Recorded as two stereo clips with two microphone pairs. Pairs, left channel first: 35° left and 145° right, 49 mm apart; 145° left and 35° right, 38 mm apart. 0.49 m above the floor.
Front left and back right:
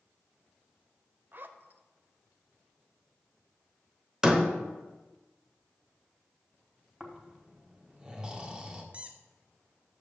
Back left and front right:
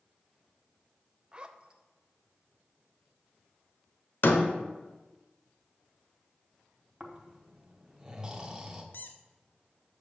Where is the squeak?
155° left, 0.7 m.